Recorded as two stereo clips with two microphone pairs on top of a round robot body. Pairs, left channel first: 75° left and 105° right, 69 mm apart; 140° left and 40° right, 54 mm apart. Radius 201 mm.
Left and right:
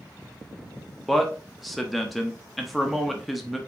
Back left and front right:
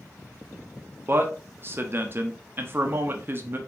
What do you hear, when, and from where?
1.1 s a man speaking: 20° right, 0.9 m